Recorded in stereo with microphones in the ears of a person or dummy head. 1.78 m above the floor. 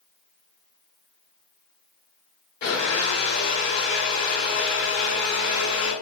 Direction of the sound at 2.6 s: 45° left (ahead or behind).